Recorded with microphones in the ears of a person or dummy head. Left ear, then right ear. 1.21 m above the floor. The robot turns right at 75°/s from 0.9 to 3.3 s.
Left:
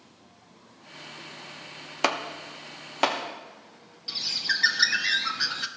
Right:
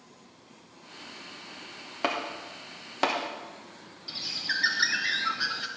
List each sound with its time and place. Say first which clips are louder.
2.0 s chopping: left 3 dB; 70° left (ahead or behind), 1.0 m; by 3.2 s 5° left (ahead or behind), 1.0 m
4.1 s a bird: left 4 dB; 15° left (ahead or behind), 0.7 m